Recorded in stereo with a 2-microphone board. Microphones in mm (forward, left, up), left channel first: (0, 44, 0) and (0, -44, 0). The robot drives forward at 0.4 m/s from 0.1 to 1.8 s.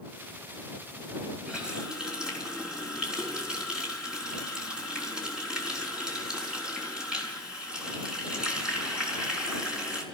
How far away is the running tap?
About 3.5 m.